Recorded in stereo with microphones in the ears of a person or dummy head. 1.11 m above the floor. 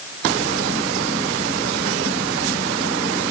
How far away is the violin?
No violin in this recording.